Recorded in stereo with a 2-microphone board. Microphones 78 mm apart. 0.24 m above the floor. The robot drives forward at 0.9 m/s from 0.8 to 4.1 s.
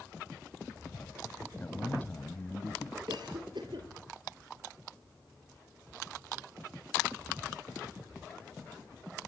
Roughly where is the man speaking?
Left.